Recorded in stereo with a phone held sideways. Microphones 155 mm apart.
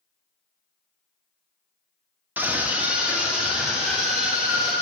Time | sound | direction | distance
2.4 | a scream | 10° right (ahead or behind) | 1.3 m